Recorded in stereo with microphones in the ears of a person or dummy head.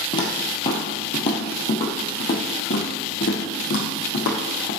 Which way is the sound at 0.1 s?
25° left (ahead or behind).